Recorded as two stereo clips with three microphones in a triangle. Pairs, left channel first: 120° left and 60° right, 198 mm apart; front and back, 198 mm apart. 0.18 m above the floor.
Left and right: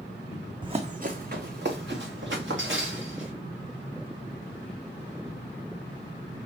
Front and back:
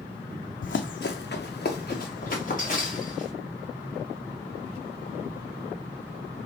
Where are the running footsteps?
5° left, 0.6 m; by 3.3 s 50° right, 2 m.